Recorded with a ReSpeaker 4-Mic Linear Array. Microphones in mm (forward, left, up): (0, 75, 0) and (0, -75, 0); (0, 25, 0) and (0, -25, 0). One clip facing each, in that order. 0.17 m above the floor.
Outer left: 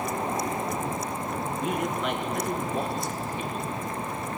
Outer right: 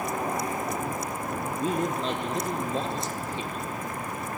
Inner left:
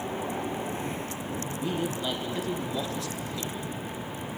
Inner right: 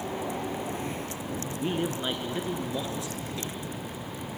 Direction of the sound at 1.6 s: 35° right (ahead or behind).